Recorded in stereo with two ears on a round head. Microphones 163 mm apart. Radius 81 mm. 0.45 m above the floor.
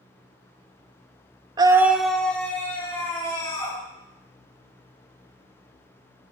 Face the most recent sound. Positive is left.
turn(degrees=15)  # may be behind; listen again after turning